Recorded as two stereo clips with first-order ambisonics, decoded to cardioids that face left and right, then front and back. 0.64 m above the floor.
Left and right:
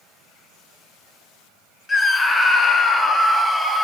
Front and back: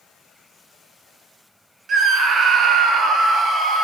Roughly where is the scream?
Behind left.